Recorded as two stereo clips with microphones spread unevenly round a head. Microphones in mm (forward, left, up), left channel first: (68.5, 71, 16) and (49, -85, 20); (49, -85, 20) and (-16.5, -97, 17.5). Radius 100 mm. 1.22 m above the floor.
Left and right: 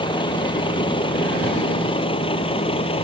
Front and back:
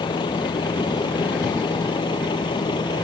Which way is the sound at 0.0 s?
25° left.